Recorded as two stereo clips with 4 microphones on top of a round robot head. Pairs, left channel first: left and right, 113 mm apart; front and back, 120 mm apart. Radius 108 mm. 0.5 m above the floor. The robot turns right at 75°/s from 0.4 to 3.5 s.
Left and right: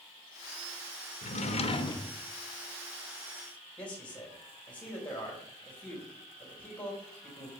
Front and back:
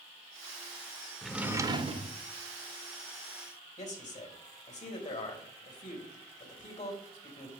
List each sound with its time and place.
1.2 s a drawer: 85° left, 0.9 m; by 2.2 s 160° left, 0.9 m
3.8 s a man speaking: 10° left, 3 m